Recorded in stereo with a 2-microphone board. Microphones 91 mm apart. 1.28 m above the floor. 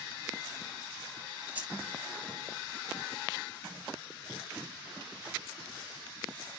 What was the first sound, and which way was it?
Keys jangling, 15° right (ahead or behind).